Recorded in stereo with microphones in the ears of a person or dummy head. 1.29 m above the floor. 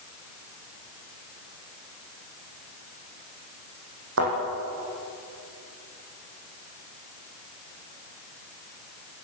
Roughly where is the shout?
No shout in this recording.